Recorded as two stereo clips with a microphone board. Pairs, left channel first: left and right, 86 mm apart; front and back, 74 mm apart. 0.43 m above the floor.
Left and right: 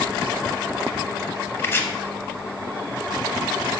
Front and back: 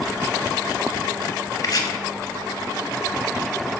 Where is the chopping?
30° left, 0.6 m.